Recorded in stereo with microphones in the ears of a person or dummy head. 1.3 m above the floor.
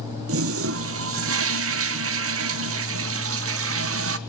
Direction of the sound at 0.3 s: 65° right (ahead or behind).